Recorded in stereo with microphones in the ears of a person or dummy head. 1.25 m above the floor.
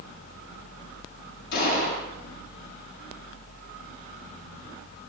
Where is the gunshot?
55° left (ahead or behind), 6.5 m.